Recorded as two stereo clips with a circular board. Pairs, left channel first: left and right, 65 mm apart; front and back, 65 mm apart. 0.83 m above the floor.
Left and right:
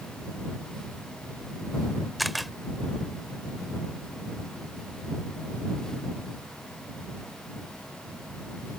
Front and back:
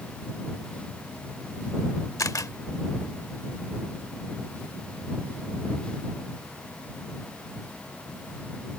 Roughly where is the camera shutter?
Ahead.